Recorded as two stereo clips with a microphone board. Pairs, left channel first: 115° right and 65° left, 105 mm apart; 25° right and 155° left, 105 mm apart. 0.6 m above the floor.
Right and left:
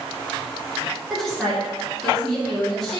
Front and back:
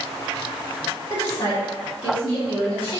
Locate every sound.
1.1 s a woman speaking: 30° right, 1.5 m